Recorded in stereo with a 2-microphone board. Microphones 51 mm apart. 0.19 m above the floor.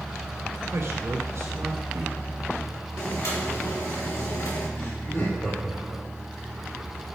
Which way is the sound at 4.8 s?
50° left (ahead or behind).